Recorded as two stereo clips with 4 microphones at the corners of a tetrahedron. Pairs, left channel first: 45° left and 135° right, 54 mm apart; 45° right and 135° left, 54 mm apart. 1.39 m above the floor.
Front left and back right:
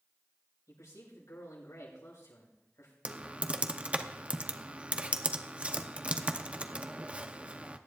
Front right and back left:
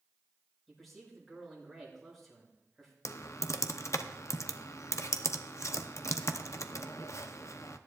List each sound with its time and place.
0.7 s a man speaking: 40° left, 6.5 m
3.0 s typing on a keyboard: 70° right, 0.7 m